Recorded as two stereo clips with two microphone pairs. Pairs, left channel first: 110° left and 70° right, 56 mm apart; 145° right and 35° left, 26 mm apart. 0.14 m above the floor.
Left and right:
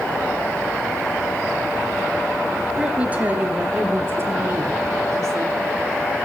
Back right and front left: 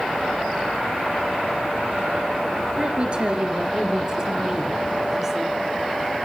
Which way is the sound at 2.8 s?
Straight ahead.